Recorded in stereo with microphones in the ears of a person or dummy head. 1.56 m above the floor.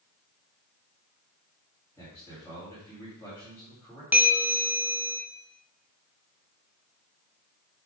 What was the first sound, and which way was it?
A man speaking, 15° left (ahead or behind).